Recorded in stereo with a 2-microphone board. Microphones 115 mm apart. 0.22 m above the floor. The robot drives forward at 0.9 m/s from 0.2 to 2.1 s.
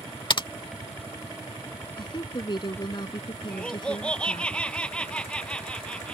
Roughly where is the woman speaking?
Left.